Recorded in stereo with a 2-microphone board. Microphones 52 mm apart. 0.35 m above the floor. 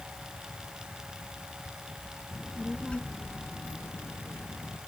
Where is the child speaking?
Centre (ahead or behind); by 4.8 s 80° left.